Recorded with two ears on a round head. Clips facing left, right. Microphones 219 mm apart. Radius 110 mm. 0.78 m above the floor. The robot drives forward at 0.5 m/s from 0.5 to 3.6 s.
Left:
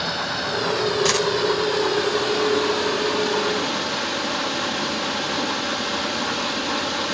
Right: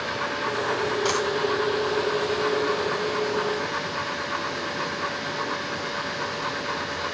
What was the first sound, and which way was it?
Running water, 55° left (ahead or behind).